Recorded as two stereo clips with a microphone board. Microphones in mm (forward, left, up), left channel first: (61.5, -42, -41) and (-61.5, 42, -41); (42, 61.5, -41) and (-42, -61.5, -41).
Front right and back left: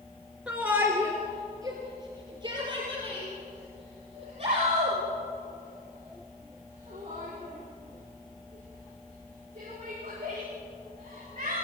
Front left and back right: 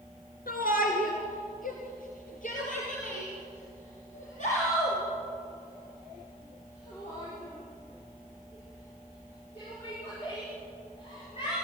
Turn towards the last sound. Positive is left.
turn(degrees=100)